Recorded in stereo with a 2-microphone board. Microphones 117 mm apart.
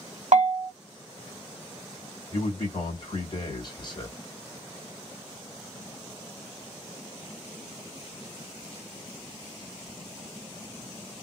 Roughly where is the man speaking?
Left.